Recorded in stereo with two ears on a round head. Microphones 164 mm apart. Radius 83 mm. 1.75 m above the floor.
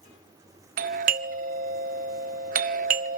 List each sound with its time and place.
0.8 s a doorbell: 45° right (ahead or behind), 0.9 m